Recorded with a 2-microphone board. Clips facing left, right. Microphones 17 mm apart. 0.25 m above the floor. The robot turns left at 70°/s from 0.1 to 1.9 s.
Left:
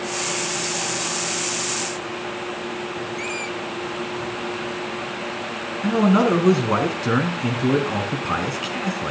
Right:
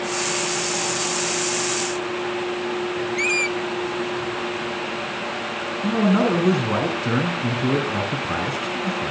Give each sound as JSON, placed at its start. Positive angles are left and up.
{"t": 3.2, "sound": "a squeak", "side_deg": -35, "distance_m": 0.8}
{"t": 5.8, "sound": "a man speaking", "side_deg": 25, "distance_m": 2.5}